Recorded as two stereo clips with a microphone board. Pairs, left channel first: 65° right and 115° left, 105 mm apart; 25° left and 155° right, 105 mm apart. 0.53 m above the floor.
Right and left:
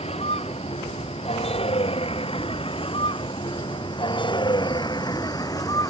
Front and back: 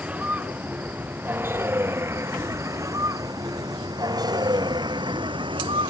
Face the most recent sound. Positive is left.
turn(degrees=-125)